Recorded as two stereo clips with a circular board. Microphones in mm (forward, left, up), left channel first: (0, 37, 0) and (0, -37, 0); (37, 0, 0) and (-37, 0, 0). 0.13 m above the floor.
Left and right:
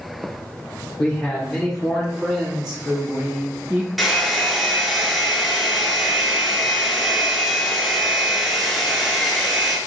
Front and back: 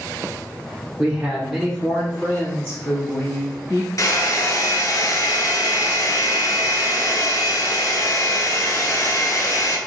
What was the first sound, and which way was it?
A man speaking, 135° left.